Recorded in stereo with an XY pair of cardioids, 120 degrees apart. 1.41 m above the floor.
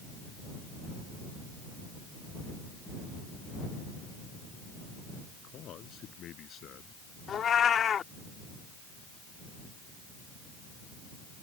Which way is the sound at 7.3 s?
45° left.